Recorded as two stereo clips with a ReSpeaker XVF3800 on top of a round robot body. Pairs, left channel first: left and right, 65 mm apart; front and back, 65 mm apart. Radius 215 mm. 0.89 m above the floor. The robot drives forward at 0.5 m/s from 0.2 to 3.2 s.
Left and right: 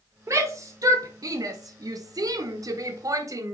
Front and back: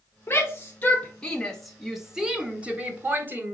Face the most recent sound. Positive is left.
turn(degrees=-120)